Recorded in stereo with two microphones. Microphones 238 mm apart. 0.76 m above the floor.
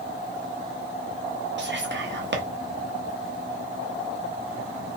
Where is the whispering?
50° right (ahead or behind), 0.7 m.